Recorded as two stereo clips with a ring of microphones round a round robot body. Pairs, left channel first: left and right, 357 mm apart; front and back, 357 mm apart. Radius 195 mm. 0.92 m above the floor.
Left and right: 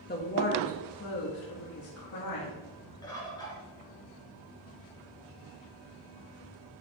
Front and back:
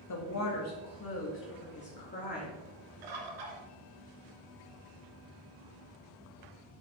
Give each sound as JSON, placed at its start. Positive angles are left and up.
{"t": 0.1, "sound": "a woman speaking", "azimuth_deg": 30, "distance_m": 1.7}
{"t": 3.0, "sound": "a bird", "azimuth_deg": 170, "distance_m": 2.5}